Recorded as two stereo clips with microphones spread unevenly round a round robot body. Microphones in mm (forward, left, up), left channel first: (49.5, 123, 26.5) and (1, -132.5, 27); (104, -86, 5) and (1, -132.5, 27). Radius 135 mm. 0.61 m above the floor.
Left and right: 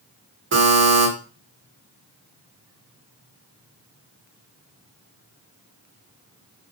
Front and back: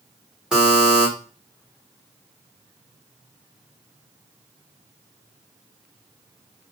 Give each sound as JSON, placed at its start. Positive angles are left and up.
{"t": 0.5, "sound": "a buzzer", "azimuth_deg": -65, "distance_m": 1.6}